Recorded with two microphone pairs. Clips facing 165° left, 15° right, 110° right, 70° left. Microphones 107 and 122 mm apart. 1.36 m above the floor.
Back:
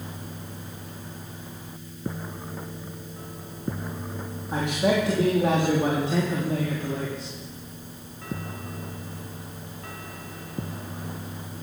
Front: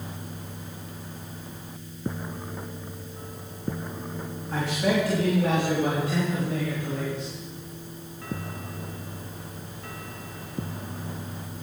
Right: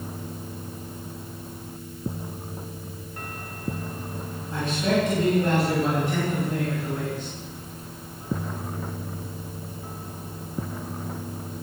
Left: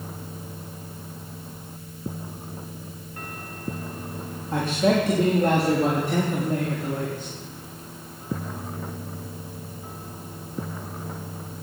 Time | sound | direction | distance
4.5 | a man speaking | 95° left | 3 m